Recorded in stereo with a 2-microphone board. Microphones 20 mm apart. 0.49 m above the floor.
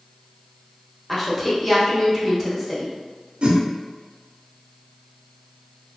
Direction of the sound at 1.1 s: 10° left (ahead or behind).